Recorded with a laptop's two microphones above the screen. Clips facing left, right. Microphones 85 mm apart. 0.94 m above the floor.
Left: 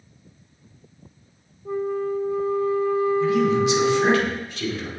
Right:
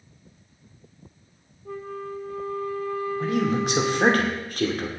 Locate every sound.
1.6 s a flute: 20° left (ahead or behind), 1.1 m
3.2 s a man speaking: 50° right (ahead or behind), 2.5 m